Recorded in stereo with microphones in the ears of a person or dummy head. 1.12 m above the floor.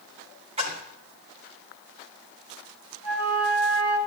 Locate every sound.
0.6 s a splash: 30° right (ahead or behind), 2 m
3.0 s a flute: 75° right (ahead or behind), 3 m